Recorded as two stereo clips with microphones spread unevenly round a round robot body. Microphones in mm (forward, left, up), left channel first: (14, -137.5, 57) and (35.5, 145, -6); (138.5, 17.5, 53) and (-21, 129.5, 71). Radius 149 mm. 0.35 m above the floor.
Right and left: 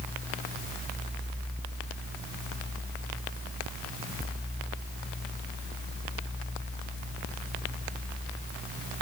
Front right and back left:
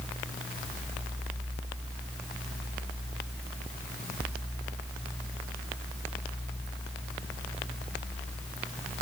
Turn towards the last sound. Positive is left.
No sound to turn to.